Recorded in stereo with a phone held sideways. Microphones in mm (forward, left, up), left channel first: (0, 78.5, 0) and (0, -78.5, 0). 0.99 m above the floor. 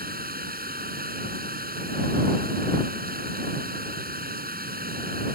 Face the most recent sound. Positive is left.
turn(degrees=-70)  # may be behind; listen again after turning